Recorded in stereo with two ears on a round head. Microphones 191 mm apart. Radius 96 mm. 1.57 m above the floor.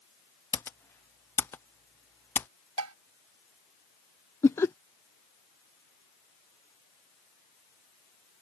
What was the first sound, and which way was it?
Typing on a keyboard, 10° left (ahead or behind).